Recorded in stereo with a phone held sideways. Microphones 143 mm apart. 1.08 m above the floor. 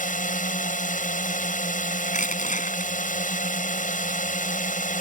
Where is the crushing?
70° left (ahead or behind).